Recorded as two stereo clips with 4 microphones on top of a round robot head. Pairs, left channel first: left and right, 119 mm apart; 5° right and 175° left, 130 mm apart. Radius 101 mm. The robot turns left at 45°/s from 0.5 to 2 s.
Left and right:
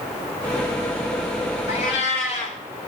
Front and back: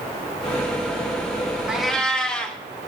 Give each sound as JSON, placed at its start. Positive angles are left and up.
{"t": 1.7, "sound": "a cat meowing", "azimuth_deg": 95, "distance_m": 0.5}